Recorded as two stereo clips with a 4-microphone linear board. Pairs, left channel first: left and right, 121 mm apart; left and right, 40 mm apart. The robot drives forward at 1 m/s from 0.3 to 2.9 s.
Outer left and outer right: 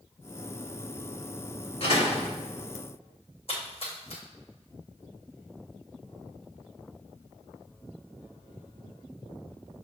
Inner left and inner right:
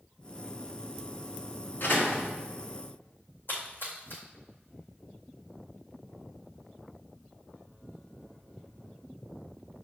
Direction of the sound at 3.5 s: 55° left (ahead or behind).